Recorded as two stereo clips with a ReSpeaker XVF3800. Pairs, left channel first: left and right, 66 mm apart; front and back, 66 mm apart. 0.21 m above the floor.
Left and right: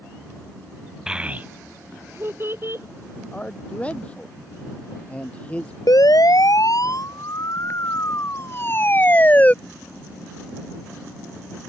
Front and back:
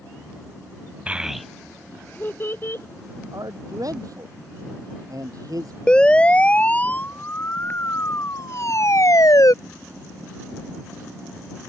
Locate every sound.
1.1 s a child speaking: 155° right; by 2.9 s 45° right
3.3 s a man speaking: 160° left
5.9 s a siren: 75° left; by 9.5 s 20° left